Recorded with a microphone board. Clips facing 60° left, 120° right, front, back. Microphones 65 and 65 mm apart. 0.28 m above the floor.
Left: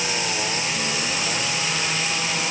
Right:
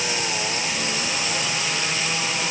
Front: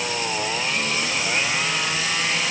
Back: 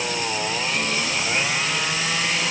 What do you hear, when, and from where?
Only background noise.